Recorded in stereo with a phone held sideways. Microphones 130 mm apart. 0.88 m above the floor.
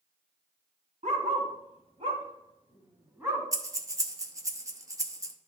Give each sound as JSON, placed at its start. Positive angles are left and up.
{"t": 1.0, "sound": "a dog barking", "side_deg": -70, "distance_m": 1.9}
{"t": 3.5, "sound": "breathing", "side_deg": -25, "distance_m": 0.8}